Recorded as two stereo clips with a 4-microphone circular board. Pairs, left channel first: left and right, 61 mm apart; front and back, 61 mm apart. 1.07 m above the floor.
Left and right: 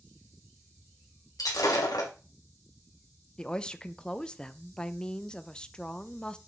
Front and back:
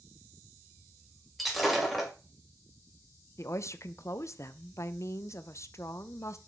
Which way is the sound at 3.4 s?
20° left.